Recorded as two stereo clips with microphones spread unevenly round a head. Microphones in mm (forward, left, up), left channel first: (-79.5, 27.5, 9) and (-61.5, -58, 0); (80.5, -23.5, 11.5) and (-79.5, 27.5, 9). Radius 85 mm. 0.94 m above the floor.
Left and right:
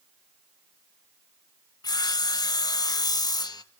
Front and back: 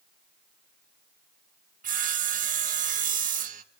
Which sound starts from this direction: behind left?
Sawing, at 1.8 s.